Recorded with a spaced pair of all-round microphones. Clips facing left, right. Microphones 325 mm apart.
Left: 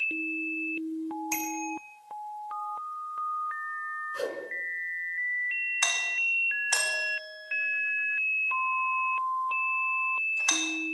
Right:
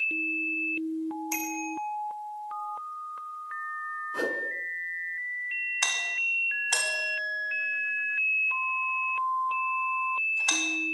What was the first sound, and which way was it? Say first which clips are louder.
A bicycle bell: right 1 dB; 90° left.